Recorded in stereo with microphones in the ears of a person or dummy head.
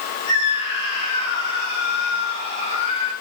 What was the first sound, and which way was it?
A scream, 30° left (ahead or behind).